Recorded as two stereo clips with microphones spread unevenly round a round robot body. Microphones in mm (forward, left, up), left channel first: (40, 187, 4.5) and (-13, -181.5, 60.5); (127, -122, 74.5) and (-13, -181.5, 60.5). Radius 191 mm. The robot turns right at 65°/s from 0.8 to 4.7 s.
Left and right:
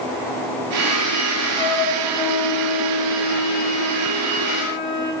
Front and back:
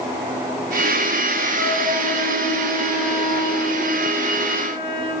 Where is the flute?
175° right, 8 m; by 5.1 s 30° left, 8 m.